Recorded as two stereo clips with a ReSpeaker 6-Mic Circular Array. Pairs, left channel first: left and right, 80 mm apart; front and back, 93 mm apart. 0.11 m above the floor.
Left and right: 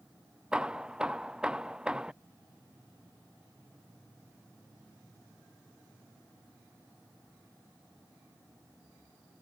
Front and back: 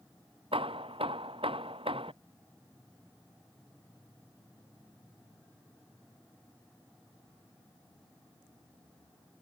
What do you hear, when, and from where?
0.5 s hammering: 170° right